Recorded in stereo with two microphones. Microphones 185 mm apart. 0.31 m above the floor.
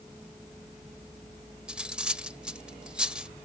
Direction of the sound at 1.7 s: 5° right (ahead or behind).